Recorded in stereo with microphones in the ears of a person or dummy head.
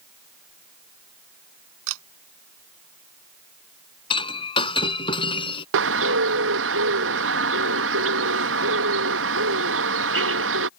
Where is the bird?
65° right (ahead or behind).